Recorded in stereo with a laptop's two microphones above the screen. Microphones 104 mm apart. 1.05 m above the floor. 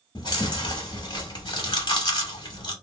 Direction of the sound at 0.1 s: 45° left (ahead or behind).